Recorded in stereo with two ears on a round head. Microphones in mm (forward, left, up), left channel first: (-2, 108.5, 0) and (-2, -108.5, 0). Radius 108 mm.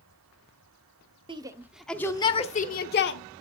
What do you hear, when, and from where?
1.3 s a shout: 20° right (ahead or behind), 1.1 m; by 3.2 s 50° left (ahead or behind), 1.4 m